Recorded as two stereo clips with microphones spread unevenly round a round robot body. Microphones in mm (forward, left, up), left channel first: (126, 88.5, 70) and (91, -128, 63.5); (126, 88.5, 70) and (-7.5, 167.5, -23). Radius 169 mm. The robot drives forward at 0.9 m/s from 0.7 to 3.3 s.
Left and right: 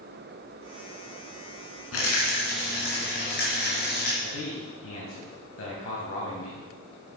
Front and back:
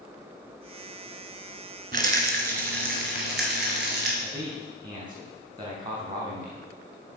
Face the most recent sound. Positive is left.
turn(degrees=105)